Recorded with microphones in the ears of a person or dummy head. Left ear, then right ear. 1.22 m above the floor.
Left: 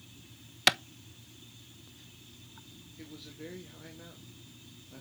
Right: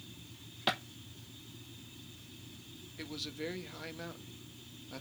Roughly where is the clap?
Left.